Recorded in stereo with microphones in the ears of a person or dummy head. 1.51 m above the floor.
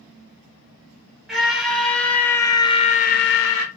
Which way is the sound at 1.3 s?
5° right (ahead or behind).